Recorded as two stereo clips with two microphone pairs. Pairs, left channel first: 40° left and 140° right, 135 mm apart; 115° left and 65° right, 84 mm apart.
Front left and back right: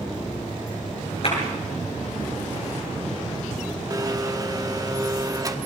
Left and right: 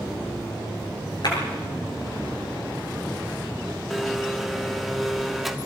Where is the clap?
80° left, 7.5 m.